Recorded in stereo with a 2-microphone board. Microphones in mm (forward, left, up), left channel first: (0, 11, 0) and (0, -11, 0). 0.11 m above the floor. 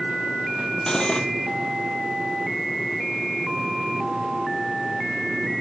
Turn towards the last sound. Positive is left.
turn(degrees=30)  # may be behind; listen again after turning